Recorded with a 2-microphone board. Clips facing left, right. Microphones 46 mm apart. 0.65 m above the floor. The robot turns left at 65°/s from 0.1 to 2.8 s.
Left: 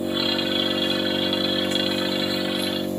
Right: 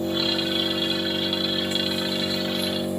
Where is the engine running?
165° left, 1.3 m; by 3.0 s 10° right, 1.3 m.